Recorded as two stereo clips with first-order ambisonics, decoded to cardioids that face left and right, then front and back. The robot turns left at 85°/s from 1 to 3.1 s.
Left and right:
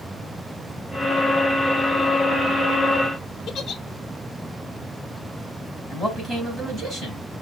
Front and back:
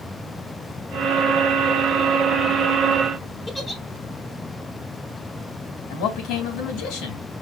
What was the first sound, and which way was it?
A giggle, 65° left.